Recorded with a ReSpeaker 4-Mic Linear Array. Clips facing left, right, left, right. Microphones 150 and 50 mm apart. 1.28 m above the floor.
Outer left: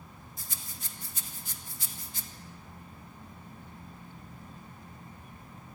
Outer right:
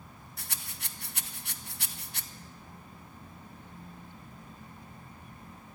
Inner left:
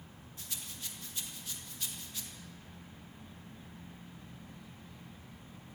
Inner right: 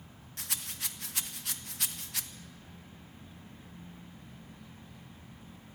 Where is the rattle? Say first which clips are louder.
Outer right 3 dB, inner right 6 dB; 75° right (ahead or behind), 1.2 m.